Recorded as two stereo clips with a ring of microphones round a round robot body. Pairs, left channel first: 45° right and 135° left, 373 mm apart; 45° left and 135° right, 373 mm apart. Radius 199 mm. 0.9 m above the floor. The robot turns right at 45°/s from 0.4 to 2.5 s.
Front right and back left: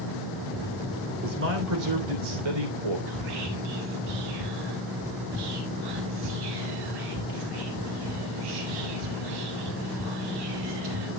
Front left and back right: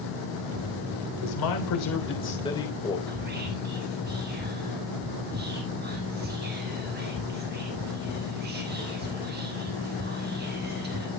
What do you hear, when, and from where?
1.2 s a man speaking: 65° left, 3.5 m; by 3.0 s 125° left, 3.5 m
3.1 s whispering: 160° left, 1.2 m